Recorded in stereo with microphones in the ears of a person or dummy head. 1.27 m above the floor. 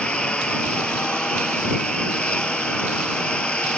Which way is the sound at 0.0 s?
5° left (ahead or behind).